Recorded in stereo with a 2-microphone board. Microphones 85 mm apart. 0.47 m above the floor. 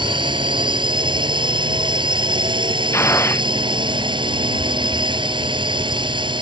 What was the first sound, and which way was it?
A drone, 70° right (ahead or behind).